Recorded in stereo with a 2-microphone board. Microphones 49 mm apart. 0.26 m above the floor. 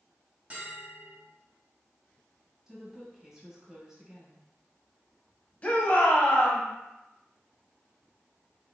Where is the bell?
30° right (ahead or behind), 1.5 m.